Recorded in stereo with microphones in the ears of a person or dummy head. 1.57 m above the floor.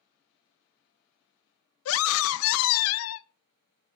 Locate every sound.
1.9 s a scream: 75° left (ahead or behind), 0.6 m